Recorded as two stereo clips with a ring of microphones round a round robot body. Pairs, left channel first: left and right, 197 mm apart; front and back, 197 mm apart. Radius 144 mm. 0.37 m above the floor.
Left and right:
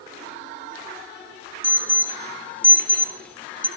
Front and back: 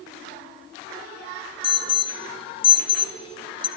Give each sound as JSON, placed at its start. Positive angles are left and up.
{"t": 1.6, "sound": "an alarm", "azimuth_deg": 15, "distance_m": 0.7}